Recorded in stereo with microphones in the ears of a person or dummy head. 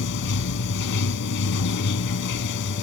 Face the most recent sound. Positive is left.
turn(degrees=60)  # may be behind; listen again after turning